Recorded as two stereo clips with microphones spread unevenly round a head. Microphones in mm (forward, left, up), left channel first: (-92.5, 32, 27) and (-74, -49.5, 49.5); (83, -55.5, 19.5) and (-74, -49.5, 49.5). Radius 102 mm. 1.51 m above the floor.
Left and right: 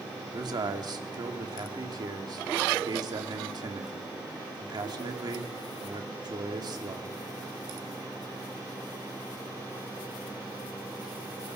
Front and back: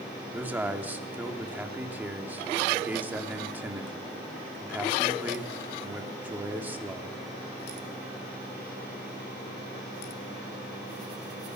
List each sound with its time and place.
0.3 s a man speaking: 105° right, 3 m